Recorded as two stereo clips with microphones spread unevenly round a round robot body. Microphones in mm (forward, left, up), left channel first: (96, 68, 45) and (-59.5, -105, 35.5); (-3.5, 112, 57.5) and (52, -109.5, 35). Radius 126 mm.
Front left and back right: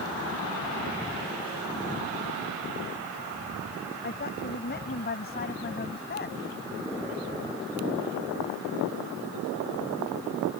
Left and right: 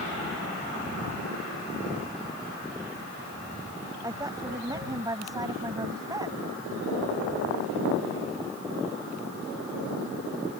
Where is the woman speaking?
Straight ahead.